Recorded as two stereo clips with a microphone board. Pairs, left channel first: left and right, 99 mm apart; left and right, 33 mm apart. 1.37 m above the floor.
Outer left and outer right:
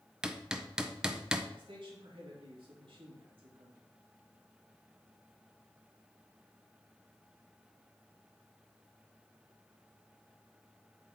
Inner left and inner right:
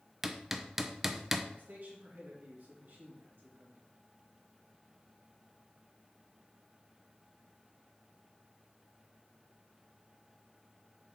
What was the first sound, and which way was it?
Hammering, 10° right (ahead or behind).